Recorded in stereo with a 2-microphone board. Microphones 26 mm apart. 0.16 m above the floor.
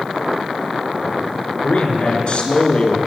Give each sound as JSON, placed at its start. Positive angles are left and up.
{"t": 1.6, "sound": "a man speaking", "side_deg": 55, "distance_m": 2.0}